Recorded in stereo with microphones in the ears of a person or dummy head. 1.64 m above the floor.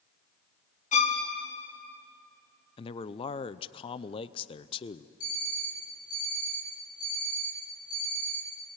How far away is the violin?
About 1.8 m.